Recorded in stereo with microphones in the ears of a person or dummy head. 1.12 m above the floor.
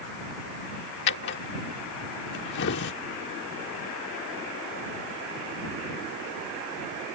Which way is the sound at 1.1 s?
60° left (ahead or behind).